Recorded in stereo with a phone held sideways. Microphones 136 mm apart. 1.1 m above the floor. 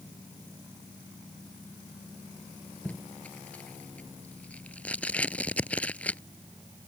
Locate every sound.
2.9 s tape being pulled: 10° left (ahead or behind)